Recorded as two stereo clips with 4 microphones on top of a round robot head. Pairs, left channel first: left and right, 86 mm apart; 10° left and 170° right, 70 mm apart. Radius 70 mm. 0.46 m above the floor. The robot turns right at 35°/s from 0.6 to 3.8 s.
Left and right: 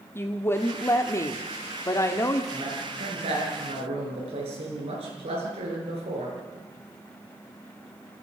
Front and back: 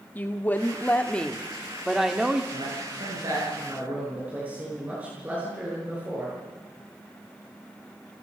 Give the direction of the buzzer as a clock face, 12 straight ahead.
I don't hear a buzzer.